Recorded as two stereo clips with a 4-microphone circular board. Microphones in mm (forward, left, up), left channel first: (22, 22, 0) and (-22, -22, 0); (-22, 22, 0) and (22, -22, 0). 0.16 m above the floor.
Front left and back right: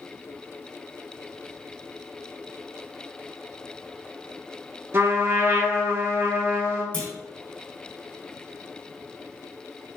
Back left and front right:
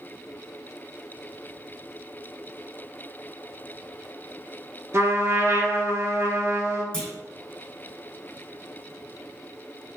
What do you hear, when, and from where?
4.9 s a trumpet: 85° right, 0.9 m
6.9 s a clunk: 80° left, 1.8 m